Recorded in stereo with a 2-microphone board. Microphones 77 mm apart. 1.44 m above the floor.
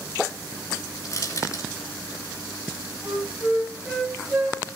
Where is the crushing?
45° left (ahead or behind), 3 m.